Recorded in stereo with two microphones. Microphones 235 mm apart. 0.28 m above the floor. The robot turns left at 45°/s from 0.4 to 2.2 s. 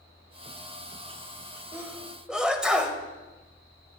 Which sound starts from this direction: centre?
A sneeze, at 1.7 s.